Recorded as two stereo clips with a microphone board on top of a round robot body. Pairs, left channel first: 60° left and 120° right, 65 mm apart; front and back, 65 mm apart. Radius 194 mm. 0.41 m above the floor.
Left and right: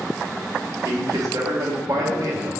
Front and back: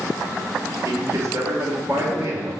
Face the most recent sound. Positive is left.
turn(degrees=-135)